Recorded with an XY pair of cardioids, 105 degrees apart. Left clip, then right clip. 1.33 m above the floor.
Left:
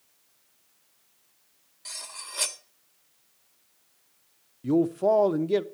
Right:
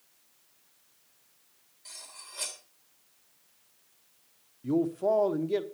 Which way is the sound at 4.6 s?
35° left.